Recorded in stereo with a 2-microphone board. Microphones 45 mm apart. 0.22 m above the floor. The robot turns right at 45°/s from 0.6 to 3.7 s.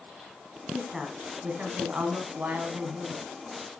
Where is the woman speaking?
165° right, 1.6 m; by 3.3 s 50° right, 1.6 m.